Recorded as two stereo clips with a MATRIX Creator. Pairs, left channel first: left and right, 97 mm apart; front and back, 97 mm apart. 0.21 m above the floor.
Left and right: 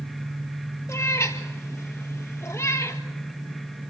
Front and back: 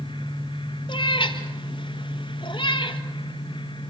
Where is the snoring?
No snoring in this recording.